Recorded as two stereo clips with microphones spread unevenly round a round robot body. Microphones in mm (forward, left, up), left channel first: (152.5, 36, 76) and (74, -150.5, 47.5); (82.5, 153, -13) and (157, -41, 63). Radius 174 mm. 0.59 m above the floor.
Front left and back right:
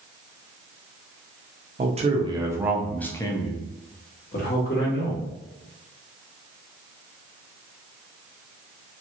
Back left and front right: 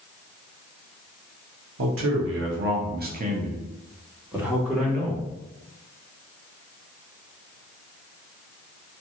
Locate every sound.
1.8 s a man speaking: 90° right, 0.9 m; by 5.2 s 35° left, 1.5 m